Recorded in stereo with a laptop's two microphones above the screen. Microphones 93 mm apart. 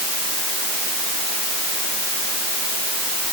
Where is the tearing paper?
No tearing paper in this recording.